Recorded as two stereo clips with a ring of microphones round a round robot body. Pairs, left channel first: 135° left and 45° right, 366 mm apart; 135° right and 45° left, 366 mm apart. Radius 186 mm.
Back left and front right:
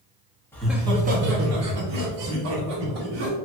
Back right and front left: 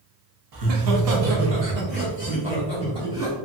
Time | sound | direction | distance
0.5 | laughter | 55° left | 0.8 m